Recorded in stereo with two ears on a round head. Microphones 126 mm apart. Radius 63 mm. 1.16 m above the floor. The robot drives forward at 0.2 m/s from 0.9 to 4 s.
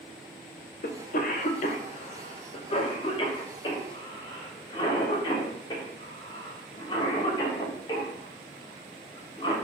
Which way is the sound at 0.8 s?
65° left (ahead or behind).